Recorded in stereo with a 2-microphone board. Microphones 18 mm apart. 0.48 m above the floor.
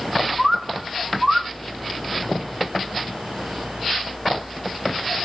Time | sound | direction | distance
0.4 | a bird | 20° right (ahead or behind) | 1.3 m